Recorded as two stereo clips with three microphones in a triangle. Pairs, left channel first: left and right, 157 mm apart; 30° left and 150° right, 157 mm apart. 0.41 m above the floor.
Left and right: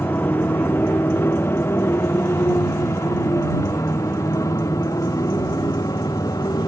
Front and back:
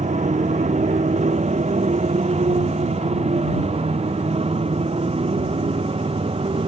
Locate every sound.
0.0 s a motorcycle: 170° left; by 6.7 s 155° left